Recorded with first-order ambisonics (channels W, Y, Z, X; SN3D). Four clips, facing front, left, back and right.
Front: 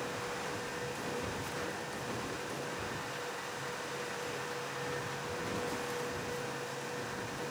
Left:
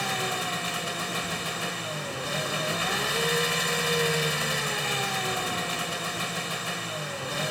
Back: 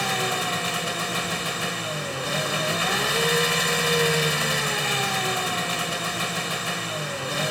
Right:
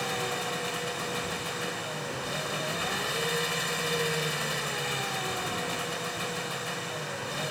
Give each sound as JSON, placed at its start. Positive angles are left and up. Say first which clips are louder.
{"t": 0.0, "sound": "an engine running", "louder": "left 3 dB, back 14 dB", "azimuth_deg": 165}